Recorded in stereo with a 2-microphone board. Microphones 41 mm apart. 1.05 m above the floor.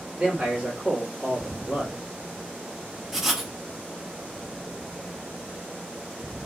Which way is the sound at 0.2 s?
30° right (ahead or behind).